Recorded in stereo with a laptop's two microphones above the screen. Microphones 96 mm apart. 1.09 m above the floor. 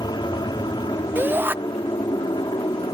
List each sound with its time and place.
0.0 s an aircraft: 50° left (ahead or behind)
1.1 s a shout: 20° right (ahead or behind)